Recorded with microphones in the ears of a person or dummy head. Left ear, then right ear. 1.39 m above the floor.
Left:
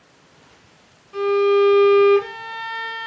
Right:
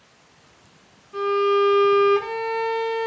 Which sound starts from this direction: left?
A violin, at 1.1 s.